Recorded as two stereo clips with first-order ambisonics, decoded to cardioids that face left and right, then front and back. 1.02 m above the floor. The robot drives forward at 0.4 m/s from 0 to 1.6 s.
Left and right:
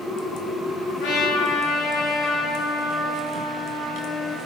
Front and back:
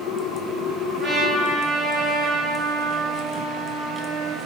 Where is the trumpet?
115° left, 0.6 m; by 4.4 s 135° left, 0.7 m.